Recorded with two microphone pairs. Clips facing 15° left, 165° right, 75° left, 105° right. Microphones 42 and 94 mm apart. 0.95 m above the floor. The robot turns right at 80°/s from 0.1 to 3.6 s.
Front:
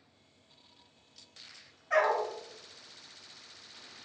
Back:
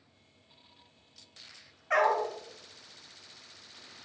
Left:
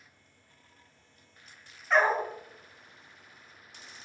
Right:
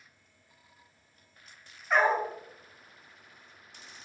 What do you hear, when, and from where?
1.9 s a dog barking: 170° left, 0.7 m; by 2.3 s 160° right, 0.7 m